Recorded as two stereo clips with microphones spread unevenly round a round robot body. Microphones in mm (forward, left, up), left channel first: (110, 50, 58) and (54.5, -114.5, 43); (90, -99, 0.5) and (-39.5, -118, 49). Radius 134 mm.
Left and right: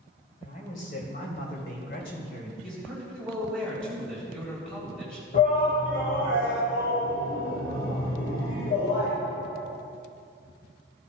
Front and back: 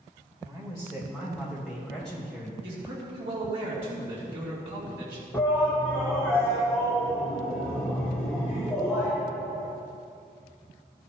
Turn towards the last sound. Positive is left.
turn(degrees=85)